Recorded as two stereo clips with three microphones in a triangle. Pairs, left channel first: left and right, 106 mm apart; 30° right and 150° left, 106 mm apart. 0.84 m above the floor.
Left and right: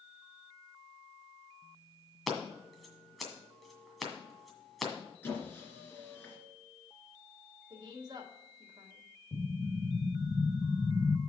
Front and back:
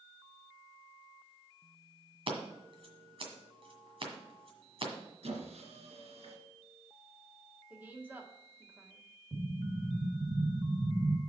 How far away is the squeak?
About 2.5 m.